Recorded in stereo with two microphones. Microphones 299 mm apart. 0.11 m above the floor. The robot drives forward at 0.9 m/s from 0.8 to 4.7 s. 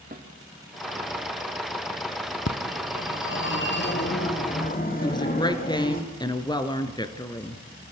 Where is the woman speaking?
15° left (ahead or behind), 1.9 m.